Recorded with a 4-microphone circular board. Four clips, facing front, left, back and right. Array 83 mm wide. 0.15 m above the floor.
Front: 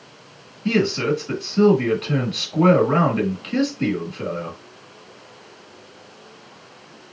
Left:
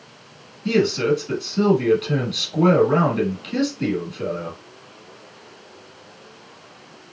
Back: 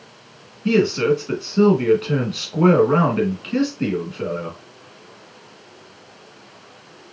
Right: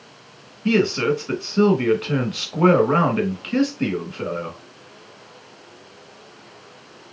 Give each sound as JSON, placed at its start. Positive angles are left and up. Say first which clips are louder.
{"t": 0.7, "sound": "a man speaking", "louder": "even, back 3 dB", "azimuth_deg": -90, "distance_m": 1.4}